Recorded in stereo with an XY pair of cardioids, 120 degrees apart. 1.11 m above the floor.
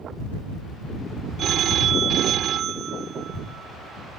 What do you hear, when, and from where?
1.4 s a phone ringing: 55° right